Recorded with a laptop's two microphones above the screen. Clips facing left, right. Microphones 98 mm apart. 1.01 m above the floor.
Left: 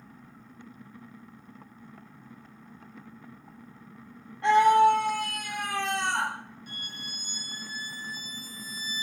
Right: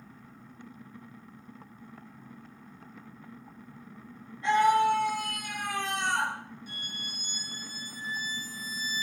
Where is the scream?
80° left, 3 m; by 6.3 s 55° left (ahead or behind), 2.5 m.